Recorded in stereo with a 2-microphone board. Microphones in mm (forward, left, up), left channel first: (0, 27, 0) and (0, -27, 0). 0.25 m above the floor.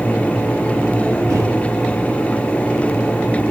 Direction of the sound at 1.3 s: 75° right (ahead or behind).